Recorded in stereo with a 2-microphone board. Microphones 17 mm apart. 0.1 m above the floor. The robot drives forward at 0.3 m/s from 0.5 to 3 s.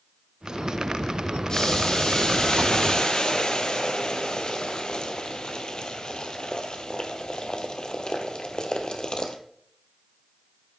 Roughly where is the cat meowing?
No cat meowing in this recording.